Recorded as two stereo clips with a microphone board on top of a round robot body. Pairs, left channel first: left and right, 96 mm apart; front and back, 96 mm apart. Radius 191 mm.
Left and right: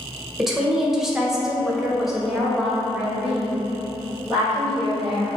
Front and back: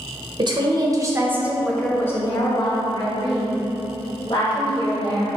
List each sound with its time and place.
0.4 s a woman speaking: 175° right, 1.0 m; by 5.3 s straight ahead, 2 m